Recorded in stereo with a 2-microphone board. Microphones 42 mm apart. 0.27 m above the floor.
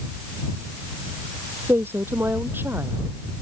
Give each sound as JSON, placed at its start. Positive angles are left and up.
{"t": 1.7, "sound": "a woman speaking", "side_deg": -60}